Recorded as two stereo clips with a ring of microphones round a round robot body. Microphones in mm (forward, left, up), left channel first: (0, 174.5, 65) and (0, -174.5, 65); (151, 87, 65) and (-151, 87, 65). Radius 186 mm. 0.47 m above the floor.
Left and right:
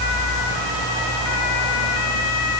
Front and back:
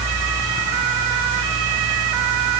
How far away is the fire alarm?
I don't hear a fire alarm.